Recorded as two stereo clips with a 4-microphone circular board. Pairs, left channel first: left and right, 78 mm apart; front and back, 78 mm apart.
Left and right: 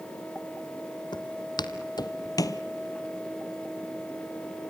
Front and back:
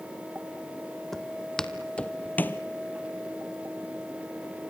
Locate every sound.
1.1 s footsteps: 85° left, 1.6 m; by 2.6 s 60° left, 0.9 m